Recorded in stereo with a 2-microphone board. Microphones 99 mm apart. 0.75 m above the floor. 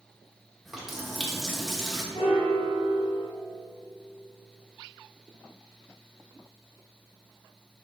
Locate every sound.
0.7 s a running tap: centre (ahead or behind), 1.3 m
2.1 s a piano: 65° left (ahead or behind), 2 m